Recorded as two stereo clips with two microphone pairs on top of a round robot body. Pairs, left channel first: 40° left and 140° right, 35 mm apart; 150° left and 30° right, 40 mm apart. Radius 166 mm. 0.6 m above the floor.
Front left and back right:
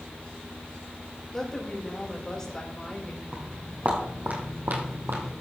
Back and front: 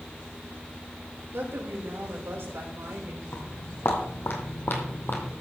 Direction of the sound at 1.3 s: 30° right.